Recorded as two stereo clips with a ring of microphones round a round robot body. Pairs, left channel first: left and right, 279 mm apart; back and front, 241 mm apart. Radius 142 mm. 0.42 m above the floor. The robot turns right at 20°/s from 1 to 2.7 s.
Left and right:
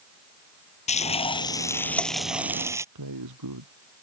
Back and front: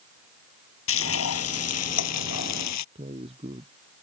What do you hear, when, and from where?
0.9 s frying: 155° left; by 2.9 s 170° right
3.0 s a man speaking: 70° right